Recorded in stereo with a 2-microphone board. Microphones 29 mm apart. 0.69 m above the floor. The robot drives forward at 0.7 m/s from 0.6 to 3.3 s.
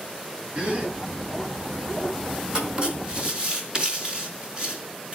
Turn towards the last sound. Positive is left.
turn(degrees=-30)  # may be behind; listen again after turning